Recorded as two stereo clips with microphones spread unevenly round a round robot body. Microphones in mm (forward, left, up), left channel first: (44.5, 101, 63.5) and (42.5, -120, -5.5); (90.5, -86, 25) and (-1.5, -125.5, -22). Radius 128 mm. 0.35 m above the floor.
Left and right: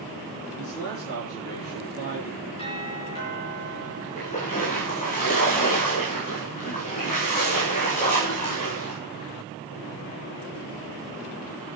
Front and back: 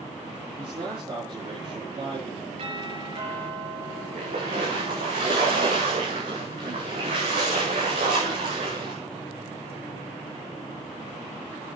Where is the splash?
150° left, 4.5 m.